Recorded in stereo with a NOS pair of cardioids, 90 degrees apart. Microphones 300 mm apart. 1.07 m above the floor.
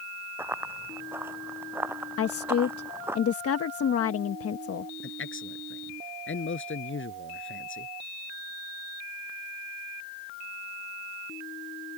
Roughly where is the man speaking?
Ahead left.